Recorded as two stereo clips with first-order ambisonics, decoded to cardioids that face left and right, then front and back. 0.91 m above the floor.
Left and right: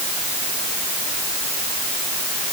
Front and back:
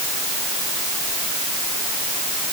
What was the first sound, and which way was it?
Only background noise.